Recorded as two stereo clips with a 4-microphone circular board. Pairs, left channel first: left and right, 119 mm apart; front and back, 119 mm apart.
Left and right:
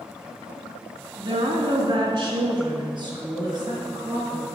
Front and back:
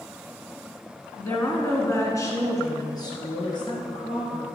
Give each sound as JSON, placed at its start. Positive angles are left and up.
{"t": 1.2, "sound": "a woman speaking", "azimuth_deg": -70, "distance_m": 2.0}